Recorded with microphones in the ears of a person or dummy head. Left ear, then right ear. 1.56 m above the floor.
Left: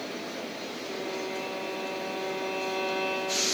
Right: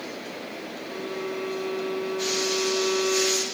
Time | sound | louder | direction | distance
0.8 | a violin | right 2 dB | 20° left (ahead or behind) | 1.4 m